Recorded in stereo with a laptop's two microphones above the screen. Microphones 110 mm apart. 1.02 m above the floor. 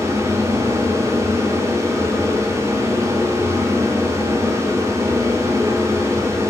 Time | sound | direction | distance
0.0 | a fan | 25° right (ahead or behind) | 1.2 m